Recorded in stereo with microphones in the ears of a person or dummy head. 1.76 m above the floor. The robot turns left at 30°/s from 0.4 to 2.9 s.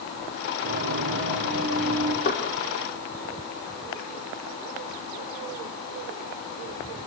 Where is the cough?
No cough in this recording.